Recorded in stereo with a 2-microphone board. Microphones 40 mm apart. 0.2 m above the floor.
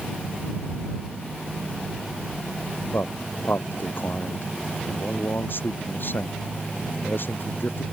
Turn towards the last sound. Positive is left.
turn(degrees=65)  # may be behind; listen again after turning